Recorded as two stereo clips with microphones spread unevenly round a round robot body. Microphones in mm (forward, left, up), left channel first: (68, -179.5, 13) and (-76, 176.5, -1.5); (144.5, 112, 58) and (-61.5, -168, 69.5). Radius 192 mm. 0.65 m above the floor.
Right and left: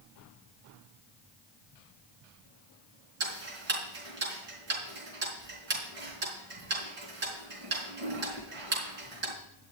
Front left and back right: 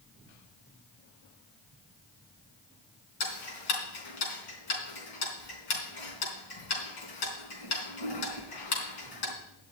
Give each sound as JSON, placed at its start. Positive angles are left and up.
{"t": 3.2, "sound": "ticking", "azimuth_deg": 50, "distance_m": 3.5}